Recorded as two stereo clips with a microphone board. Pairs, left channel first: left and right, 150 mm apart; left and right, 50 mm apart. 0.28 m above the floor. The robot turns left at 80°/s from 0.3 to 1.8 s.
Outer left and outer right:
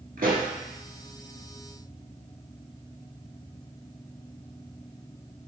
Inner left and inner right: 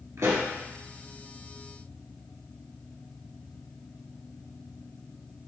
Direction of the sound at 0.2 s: 75° right (ahead or behind).